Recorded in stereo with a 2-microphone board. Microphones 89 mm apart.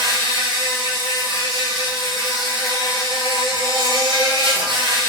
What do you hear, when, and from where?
0.0 s an insect: 60° right (ahead or behind), 1.1 m